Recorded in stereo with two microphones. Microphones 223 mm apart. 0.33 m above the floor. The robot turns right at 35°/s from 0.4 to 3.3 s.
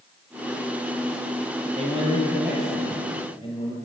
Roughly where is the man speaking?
Ahead right.